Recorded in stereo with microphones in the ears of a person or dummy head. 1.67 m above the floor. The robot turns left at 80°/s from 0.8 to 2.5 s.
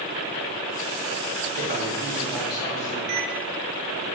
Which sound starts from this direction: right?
A microwave, at 3.1 s.